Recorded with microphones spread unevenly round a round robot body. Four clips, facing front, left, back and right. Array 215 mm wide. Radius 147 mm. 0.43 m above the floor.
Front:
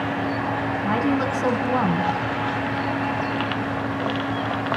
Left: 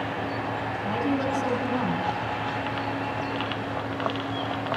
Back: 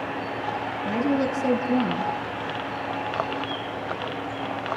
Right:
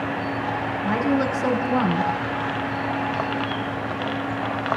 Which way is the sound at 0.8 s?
25° right.